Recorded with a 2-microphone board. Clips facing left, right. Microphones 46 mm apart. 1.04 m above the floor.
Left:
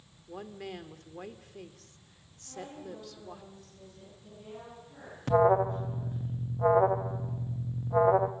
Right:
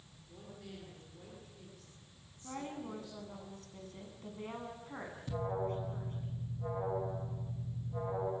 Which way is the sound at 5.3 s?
70° left (ahead or behind).